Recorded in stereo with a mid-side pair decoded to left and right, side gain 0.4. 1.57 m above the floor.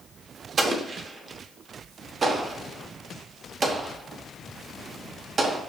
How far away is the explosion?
About 0.8 m.